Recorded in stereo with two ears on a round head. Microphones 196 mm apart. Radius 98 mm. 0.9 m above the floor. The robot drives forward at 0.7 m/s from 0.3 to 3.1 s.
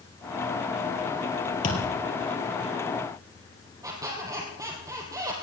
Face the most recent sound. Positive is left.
turn(degrees=-15)  # may be behind; listen again after turning